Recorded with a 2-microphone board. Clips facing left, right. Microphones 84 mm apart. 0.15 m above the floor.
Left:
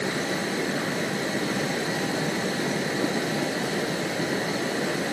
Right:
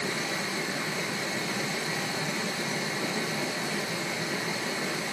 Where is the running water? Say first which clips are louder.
Left 5 dB; 55° left (ahead or behind), 0.9 m.